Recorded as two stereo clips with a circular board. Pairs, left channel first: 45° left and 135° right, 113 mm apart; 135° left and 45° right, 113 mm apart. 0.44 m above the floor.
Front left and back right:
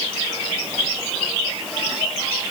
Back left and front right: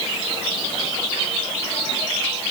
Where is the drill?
I don't hear a drill.